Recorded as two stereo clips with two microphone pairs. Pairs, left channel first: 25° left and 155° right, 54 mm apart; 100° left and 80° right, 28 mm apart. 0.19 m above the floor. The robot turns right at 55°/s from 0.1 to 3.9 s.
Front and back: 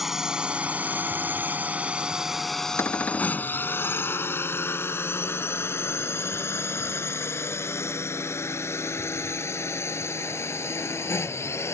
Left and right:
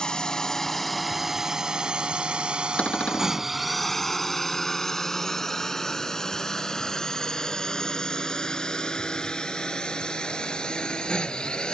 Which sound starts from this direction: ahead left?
A cupboard door, at 2.8 s.